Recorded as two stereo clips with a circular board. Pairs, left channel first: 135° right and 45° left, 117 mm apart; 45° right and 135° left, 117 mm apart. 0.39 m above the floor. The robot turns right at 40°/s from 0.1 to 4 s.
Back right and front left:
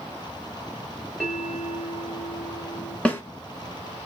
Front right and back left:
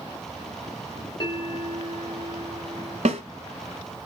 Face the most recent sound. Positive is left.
turn(degrees=-175)